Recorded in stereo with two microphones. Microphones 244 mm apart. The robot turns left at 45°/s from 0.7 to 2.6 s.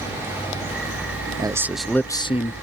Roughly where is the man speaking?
Behind.